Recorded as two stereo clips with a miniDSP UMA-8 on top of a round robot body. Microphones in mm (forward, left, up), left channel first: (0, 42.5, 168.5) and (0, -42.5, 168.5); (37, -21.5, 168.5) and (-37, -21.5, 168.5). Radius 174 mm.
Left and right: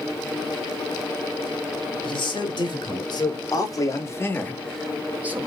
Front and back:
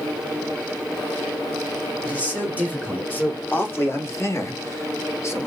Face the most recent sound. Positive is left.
turn(degrees=-35)